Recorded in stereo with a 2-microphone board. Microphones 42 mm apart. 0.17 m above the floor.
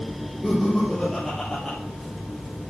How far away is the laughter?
About 4.5 m.